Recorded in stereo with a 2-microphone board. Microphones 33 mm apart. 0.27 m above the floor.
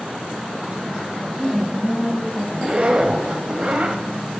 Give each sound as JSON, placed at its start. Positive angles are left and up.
{"t": 1.2, "sound": "a woman speaking", "side_deg": 55, "distance_m": 2.5}
{"t": 2.5, "sound": "a zipper", "side_deg": -30, "distance_m": 0.6}